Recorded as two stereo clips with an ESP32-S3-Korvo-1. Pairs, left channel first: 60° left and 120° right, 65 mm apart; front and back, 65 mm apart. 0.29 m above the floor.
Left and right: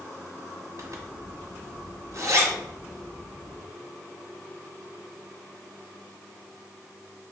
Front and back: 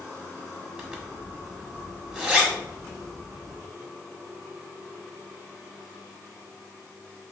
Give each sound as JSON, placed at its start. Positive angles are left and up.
{"t": 0.8, "sound": "a zipper", "azimuth_deg": -105, "distance_m": 1.2}